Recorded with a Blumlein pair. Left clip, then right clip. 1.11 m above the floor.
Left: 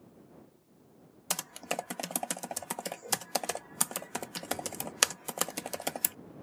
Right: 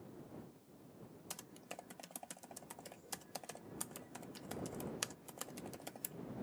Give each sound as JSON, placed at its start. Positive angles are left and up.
{"t": 1.3, "sound": "typing on a keyboard", "azimuth_deg": 35}